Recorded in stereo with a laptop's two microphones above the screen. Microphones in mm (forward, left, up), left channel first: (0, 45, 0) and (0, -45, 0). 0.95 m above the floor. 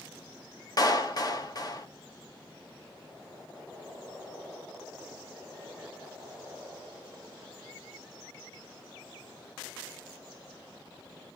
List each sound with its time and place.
0.8 s a clap: 45° left (ahead or behind), 1.4 m